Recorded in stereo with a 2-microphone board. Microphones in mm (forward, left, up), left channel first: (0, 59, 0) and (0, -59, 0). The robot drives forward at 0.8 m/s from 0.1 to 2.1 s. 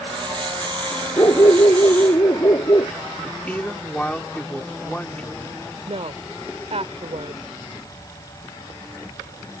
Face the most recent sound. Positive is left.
turn(degrees=-60)  # may be behind; listen again after turning